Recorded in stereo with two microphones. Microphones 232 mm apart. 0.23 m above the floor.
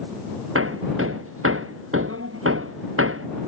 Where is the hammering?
70° right (ahead or behind).